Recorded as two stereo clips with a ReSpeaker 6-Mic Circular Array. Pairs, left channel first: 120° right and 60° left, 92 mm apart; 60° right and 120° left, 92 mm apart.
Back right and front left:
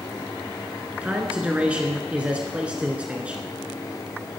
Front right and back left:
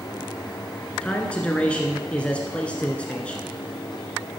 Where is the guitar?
I don't hear a guitar.